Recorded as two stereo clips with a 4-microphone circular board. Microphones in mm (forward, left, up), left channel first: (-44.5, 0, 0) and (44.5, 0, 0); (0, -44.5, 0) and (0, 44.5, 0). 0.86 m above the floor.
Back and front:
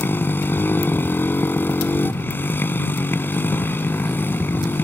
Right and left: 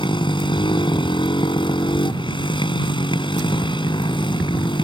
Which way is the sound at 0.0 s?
115° right.